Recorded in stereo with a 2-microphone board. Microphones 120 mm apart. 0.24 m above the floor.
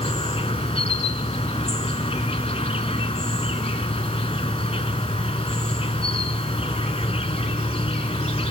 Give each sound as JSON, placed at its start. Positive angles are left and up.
{"t": 0.0, "sound": "an insect", "side_deg": 55, "distance_m": 0.9}